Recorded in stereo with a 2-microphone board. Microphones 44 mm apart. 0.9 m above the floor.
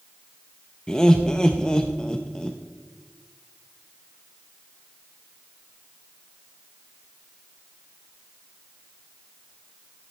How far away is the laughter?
About 0.6 m.